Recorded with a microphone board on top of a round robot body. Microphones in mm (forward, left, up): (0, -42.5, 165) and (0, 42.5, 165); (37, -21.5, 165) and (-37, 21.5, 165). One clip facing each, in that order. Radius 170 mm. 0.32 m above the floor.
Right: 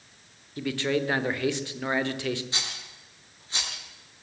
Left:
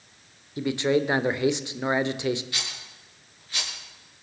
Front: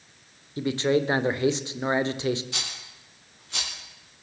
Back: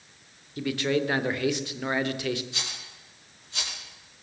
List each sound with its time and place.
0.6 s a man speaking: 25° left, 1.9 m
2.5 s a rattle: 25° right, 7 m